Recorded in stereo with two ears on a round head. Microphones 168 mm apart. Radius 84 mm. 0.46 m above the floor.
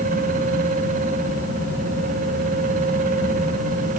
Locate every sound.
Only background noise.